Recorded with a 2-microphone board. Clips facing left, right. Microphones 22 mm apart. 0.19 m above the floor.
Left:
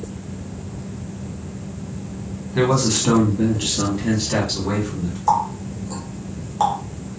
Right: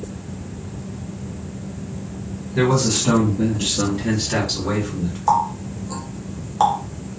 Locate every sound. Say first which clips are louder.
2.5 s a man speaking: even; 25° left (ahead or behind), 1.1 m; by 5.2 s 15° right (ahead or behind), 1.4 m
5.3 s a running tap: right 1 dB; 15° right (ahead or behind), 0.8 m